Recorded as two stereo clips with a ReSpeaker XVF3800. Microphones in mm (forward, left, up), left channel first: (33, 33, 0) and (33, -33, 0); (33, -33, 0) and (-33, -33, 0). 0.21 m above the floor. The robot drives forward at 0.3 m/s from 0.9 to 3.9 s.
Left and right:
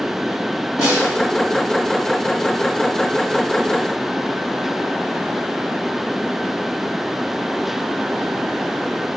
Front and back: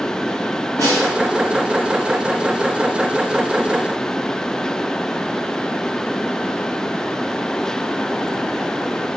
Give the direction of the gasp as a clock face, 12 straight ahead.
No gasp in this recording.